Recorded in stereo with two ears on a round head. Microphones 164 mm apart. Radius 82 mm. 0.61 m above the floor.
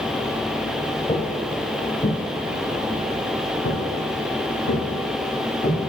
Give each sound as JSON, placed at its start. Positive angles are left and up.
{"t": 1.1, "sound": "footsteps", "side_deg": 20, "distance_m": 1.0}